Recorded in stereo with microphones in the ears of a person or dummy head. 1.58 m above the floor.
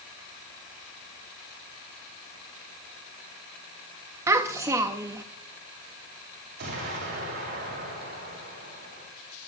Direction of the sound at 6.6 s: 60° right (ahead or behind).